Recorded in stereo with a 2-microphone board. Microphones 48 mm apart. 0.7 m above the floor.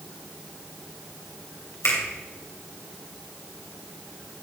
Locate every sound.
1.8 s a finger snap: 80° left, 3 m